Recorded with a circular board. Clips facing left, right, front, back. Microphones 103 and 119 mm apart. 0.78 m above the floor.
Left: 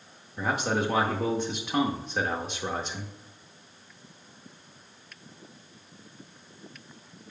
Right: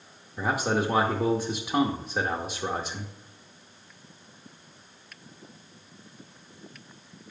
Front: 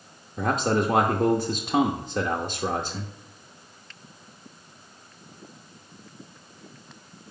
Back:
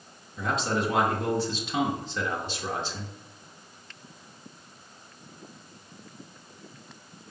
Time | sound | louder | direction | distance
0.4 | a man speaking | right 1 dB, front 4 dB | 10° right | 0.7 m